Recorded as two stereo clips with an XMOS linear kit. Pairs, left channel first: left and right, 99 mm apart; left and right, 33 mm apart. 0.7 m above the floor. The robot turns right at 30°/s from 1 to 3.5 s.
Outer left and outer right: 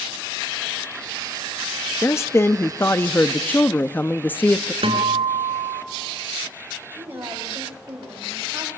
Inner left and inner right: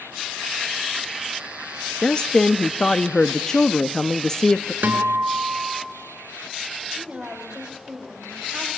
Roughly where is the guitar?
Right.